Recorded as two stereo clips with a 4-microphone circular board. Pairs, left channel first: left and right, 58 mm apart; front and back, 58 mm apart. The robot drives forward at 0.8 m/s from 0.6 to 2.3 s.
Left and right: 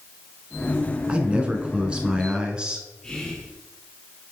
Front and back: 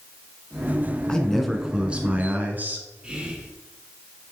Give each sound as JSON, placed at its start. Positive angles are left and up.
{"t": 1.1, "sound": "a man speaking", "azimuth_deg": -55, "distance_m": 1.1}
{"t": 3.0, "sound": "whispering", "azimuth_deg": 150, "distance_m": 1.5}